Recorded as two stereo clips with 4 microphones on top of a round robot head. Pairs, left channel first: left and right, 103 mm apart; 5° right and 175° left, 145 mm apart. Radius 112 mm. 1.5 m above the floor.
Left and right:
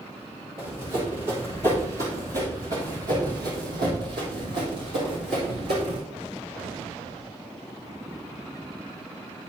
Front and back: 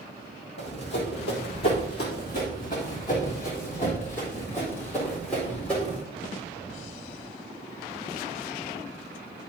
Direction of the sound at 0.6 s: 25° right.